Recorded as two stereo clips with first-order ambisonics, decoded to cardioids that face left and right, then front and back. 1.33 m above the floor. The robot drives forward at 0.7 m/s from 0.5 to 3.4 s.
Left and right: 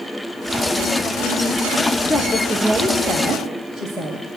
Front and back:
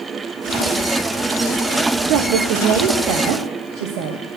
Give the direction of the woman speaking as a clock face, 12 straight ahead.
6 o'clock.